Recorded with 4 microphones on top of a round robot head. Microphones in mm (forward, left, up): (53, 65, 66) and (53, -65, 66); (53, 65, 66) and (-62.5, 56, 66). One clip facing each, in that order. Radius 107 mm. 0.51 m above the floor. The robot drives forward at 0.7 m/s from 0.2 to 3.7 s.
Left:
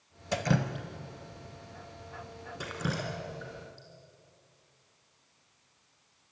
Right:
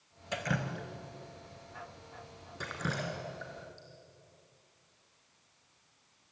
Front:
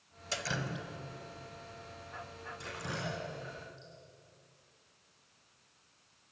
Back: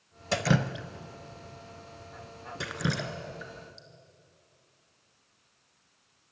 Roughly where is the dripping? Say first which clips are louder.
Left 6 dB, back 11 dB; behind left.